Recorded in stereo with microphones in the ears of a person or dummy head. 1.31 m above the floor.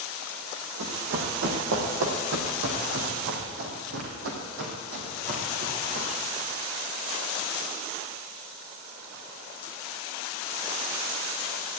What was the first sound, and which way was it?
Running footsteps, 55° right (ahead or behind).